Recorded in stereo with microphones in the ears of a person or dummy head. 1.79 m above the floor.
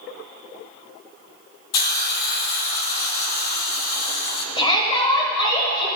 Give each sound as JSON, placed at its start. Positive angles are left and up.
{"t": 1.7, "sound": "a hiss", "side_deg": 55, "distance_m": 0.5}
{"t": 4.6, "sound": "a shout", "side_deg": 30, "distance_m": 1.3}